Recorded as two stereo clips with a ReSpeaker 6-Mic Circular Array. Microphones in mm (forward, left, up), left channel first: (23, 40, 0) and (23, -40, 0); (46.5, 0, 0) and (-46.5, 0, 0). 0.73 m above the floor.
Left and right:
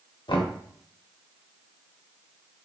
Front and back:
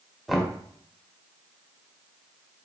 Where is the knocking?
90° left, 0.8 m.